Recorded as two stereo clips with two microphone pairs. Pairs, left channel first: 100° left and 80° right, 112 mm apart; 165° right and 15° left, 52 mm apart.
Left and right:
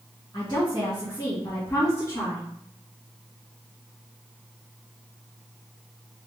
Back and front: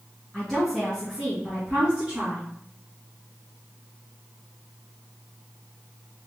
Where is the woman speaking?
115° left, 2 m; by 2.4 s 65° left, 1.8 m.